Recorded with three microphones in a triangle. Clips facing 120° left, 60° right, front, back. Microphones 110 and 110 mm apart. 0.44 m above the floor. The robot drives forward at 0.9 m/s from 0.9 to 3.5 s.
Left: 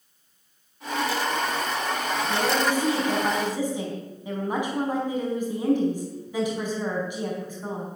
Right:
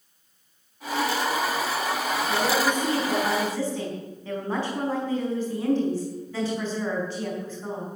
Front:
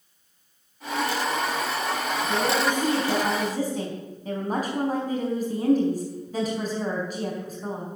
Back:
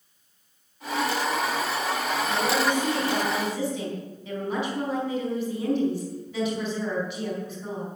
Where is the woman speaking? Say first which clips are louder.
Even, front 1 dB; 35° left, 5 m; by 7.9 s 45° left, 4.5 m.